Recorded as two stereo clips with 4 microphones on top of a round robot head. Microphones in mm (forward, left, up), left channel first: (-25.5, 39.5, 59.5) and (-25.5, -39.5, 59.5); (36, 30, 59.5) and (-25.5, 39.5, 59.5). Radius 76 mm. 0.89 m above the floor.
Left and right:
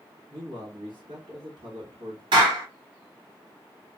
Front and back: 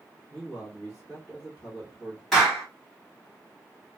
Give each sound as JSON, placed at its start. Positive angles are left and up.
{"t": 0.3, "sound": "a man speaking", "azimuth_deg": -90, "distance_m": 1.6}
{"t": 2.3, "sound": "a clap", "azimuth_deg": -90, "distance_m": 1.6}